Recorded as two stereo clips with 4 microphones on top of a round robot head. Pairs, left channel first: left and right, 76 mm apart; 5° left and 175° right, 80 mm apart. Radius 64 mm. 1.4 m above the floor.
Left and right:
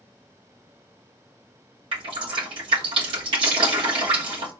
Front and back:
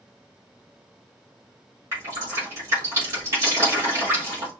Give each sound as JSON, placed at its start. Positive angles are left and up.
{"t": 1.9, "sound": "dripping", "azimuth_deg": -110, "distance_m": 3.0}